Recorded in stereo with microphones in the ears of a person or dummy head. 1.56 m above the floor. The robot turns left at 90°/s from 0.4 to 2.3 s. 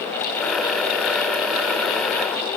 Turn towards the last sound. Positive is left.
No sound to turn to.